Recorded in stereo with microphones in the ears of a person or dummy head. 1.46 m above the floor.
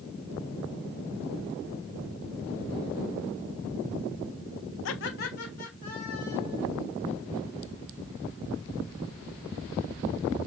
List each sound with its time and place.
4.8 s laughter: 70° left (ahead or behind), 0.6 m; by 6.7 s 40° left (ahead or behind), 3 m